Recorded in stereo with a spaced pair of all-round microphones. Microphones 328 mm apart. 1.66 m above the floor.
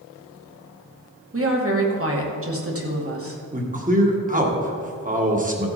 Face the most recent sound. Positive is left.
turn(degrees=-25)  # may be behind; listen again after turning